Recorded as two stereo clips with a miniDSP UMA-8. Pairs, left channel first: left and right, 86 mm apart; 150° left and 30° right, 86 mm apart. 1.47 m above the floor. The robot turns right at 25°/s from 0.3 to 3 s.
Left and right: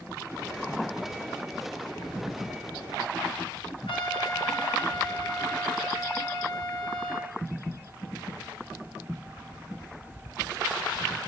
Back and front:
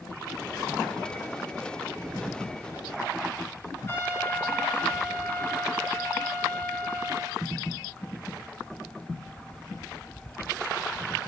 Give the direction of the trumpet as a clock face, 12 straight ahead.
9 o'clock.